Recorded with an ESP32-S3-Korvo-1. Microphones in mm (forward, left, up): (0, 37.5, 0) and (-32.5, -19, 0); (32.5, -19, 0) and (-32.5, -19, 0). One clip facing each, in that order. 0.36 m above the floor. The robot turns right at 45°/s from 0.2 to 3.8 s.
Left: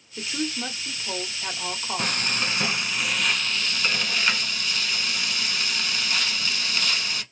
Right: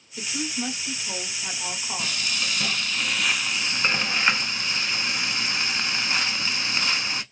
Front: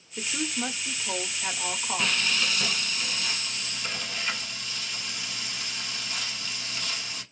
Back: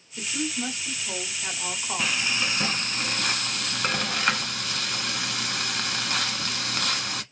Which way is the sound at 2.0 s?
95° left.